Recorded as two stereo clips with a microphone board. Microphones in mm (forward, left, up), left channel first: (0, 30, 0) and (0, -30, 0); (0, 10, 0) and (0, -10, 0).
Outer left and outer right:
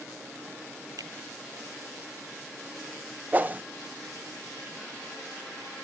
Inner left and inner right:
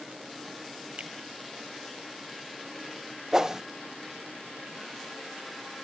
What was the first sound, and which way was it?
A finger snap, 90° right.